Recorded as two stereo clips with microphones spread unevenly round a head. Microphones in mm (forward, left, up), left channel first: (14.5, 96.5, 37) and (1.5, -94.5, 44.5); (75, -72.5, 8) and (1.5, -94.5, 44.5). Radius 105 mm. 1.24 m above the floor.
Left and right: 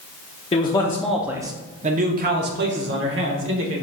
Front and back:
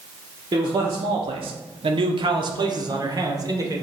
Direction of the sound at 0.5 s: 140° left.